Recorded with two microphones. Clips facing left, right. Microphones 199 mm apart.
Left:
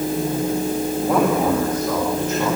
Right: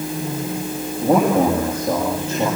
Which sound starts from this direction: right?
A man speaking, at 1.0 s.